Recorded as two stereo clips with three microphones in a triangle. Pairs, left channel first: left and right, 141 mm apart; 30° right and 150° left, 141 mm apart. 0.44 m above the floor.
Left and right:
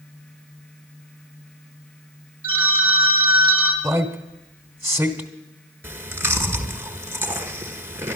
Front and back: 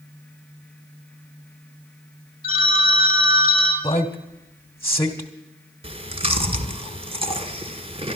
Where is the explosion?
No explosion in this recording.